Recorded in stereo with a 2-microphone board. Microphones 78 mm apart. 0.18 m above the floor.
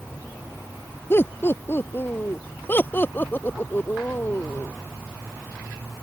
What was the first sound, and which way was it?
Laughter, 30° left (ahead or behind).